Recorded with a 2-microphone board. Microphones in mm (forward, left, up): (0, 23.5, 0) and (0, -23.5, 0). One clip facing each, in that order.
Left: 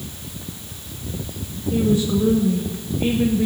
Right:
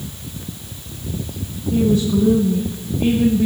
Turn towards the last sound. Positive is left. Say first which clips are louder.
# right 2 dB
turn(degrees=15)  # may be behind; listen again after turning